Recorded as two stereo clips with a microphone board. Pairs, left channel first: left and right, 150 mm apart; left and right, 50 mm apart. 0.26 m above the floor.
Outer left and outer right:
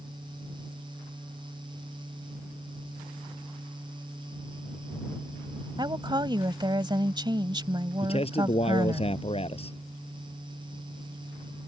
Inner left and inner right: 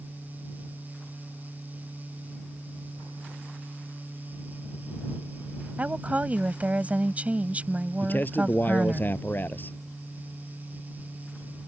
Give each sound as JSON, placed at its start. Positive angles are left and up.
{"t": 5.8, "sound": "a woman speaking", "side_deg": -30}
{"t": 8.0, "sound": "a man speaking", "side_deg": 40}